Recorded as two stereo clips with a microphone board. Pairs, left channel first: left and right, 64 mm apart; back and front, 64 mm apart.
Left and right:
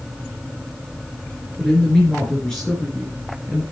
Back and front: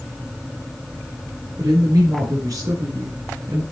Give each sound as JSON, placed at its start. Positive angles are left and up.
{"t": 1.6, "sound": "a woman speaking", "azimuth_deg": 15, "distance_m": 4.5}